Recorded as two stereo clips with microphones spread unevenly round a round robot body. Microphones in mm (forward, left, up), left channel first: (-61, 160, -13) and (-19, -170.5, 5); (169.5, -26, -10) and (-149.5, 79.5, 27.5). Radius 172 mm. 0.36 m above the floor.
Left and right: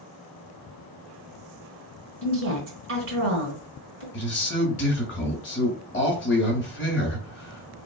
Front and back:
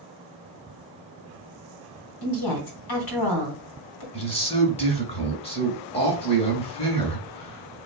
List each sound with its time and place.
2.2 s a woman speaking: 25° right, 2.5 m
4.1 s a man speaking: 50° left, 2 m